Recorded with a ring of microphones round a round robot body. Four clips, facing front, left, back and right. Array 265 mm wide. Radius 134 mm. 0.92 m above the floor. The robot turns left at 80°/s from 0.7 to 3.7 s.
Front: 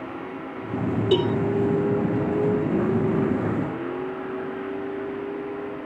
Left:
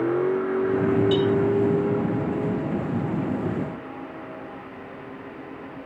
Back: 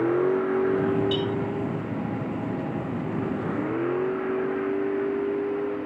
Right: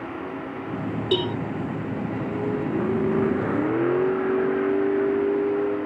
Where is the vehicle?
135° left; by 5.8 s 105° right.